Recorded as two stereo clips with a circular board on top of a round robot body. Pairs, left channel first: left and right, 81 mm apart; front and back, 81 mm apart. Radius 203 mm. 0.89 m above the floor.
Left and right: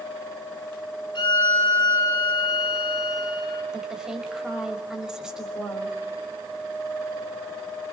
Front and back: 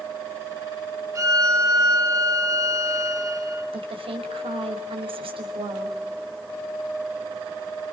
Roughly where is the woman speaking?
Behind.